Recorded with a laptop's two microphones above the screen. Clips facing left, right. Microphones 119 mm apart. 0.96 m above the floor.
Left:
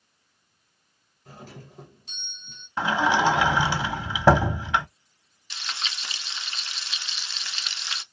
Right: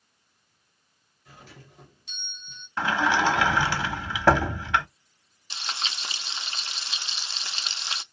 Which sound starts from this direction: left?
A doorbell, at 1.2 s.